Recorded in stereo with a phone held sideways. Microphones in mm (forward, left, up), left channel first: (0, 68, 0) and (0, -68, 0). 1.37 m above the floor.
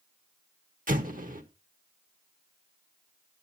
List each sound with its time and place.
0.9 s an explosion: 80° right, 1.2 m